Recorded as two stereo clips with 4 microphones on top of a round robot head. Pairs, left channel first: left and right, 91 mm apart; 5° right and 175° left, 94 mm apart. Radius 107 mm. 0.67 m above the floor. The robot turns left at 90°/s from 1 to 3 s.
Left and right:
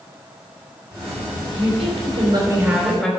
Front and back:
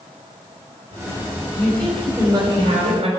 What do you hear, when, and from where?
1.5 s a woman speaking: 55° right, 4.5 m; by 3.1 s 170° left, 4.5 m